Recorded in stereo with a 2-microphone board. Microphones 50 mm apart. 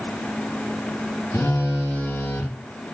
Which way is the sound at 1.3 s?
60° left (ahead or behind).